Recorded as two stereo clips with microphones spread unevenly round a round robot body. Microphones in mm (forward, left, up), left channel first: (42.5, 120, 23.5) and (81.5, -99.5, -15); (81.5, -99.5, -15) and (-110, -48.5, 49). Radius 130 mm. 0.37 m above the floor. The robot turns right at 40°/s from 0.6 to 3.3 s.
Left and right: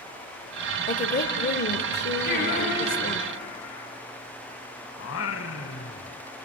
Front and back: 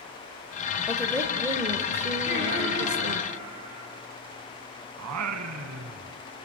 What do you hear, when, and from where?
0.9 s a woman speaking: 55° left, 1.2 m; by 3.2 s 150° left, 1.2 m
2.2 s singing: 50° left, 7 m; by 3.9 s 95° left, 7 m
5.0 s singing: 150° left, 1.1 m